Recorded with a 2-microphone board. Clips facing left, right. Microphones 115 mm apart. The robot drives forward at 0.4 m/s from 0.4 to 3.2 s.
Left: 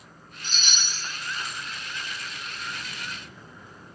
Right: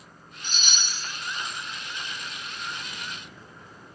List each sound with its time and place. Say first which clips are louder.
0.4 s a chime: even; 55° right (ahead or behind), 3.5 m; by 1.0 s 50° right (ahead or behind), 3.5 m